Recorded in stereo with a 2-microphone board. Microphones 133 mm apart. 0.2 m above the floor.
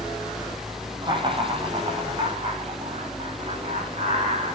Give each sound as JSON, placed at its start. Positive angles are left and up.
{"t": 1.0, "sound": "laughter", "side_deg": -35, "distance_m": 10.0}